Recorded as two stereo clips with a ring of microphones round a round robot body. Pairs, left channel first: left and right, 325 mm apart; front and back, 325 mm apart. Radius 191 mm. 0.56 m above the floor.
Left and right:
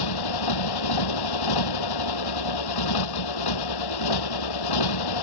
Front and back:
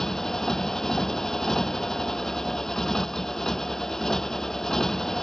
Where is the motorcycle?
90° left.